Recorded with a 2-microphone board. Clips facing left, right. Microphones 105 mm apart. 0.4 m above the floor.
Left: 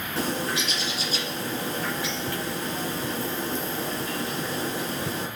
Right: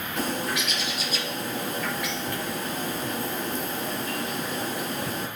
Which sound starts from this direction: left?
A bird, at 0.2 s.